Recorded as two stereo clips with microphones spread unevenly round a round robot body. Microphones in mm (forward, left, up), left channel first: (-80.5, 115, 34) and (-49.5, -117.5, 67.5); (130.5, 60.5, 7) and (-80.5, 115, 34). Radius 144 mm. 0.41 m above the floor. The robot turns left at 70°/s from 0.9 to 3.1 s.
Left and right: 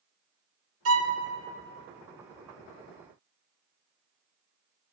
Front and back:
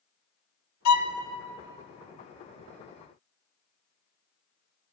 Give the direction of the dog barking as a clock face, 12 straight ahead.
I don't hear a dog barking.